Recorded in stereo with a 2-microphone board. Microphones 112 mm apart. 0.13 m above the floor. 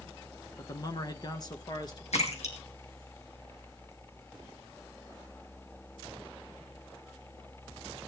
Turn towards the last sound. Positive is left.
turn(degrees=75)  # may be behind; listen again after turning